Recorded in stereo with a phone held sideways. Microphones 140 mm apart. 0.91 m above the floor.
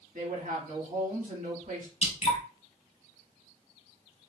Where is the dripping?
45° left (ahead or behind), 1.4 m.